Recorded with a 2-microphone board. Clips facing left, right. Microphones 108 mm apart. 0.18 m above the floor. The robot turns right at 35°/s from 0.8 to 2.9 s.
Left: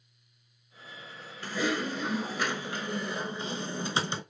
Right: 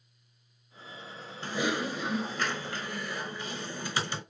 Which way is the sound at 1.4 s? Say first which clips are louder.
Even; 25° right.